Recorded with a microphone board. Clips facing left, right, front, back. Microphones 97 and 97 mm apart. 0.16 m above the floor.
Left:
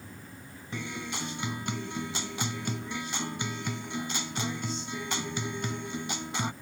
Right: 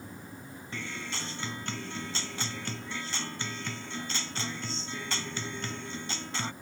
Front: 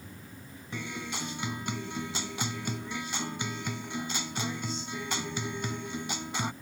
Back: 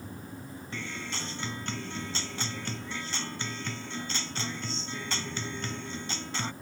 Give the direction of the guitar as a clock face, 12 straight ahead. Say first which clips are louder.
Left 3 dB, front 2 dB; 10 o'clock.